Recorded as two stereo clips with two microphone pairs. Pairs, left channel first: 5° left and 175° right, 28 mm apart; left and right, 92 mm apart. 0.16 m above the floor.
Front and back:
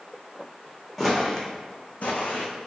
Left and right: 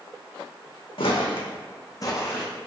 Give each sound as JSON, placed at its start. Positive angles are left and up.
{"t": 1.0, "sound": "footsteps", "azimuth_deg": 85, "distance_m": 0.7}